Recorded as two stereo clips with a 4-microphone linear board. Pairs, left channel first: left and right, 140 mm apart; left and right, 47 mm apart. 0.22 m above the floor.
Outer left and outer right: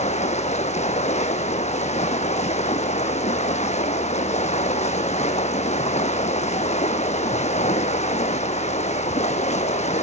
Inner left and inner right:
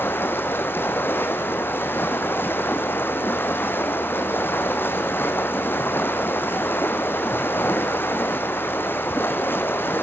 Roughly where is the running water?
Left.